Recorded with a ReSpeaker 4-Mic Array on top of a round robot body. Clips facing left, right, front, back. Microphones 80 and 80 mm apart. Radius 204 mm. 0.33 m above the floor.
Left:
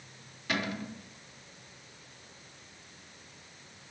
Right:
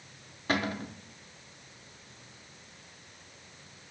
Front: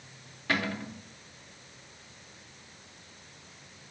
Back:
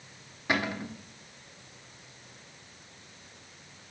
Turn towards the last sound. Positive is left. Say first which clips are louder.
# right 3 dB, back 1 dB
turn(degrees=-115)